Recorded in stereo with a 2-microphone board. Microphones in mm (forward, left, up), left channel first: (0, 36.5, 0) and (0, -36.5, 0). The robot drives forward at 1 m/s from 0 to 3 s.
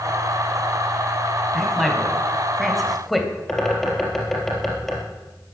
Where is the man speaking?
Centre (ahead or behind), 4 m.